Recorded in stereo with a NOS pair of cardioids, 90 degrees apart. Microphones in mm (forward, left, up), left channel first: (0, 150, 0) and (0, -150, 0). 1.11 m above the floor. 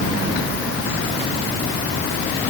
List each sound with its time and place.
Only background noise.